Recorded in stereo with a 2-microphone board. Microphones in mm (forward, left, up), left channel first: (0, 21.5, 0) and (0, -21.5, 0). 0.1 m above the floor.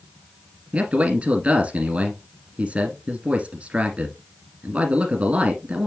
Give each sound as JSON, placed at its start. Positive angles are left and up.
{"t": 0.7, "sound": "a man speaking", "side_deg": -30, "distance_m": 1.7}